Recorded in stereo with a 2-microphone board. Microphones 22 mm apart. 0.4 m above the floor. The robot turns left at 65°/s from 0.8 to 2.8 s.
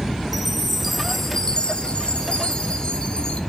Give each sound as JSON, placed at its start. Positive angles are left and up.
{"t": 0.3, "sound": "a chime", "azimuth_deg": -170, "distance_m": 1.2}